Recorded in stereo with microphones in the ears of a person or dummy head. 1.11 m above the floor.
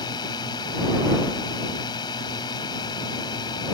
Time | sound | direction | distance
0.0 | a drone | 25° left (ahead or behind) | ?